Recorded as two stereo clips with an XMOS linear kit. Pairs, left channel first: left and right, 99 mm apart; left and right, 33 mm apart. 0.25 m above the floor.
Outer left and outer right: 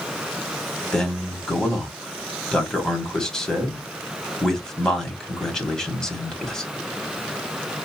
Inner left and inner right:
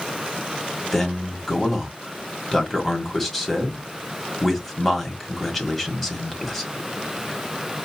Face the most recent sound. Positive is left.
turn(degrees=5)  # may be behind; listen again after turning